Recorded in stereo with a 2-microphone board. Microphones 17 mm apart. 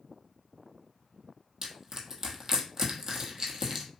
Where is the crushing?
30° right (ahead or behind), 0.8 m.